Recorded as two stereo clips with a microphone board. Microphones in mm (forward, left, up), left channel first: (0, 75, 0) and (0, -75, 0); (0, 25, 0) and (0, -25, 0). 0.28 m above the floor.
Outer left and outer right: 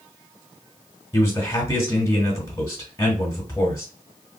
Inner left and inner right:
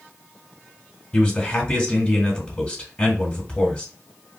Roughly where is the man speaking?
Left.